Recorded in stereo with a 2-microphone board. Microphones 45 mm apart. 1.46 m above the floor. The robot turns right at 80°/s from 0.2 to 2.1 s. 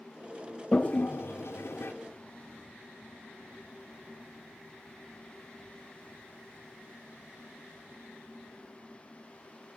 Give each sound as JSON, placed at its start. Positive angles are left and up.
{"t": 0.7, "sound": "a toilet flushing", "side_deg": 20, "distance_m": 0.7}